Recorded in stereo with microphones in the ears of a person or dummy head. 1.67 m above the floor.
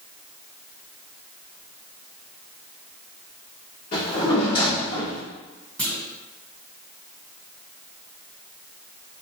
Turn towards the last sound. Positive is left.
turn(degrees=5)  # may be behind; listen again after turning